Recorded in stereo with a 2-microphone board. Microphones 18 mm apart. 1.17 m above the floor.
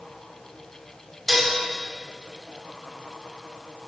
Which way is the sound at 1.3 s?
Centre (ahead or behind).